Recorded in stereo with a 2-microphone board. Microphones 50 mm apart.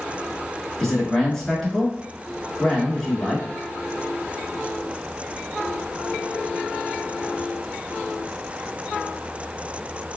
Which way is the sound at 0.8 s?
10° left (ahead or behind).